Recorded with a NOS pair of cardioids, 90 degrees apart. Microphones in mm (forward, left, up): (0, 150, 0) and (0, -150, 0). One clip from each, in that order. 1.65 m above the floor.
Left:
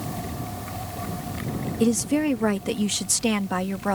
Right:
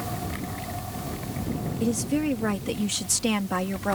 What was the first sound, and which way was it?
A woman speaking, 60° left.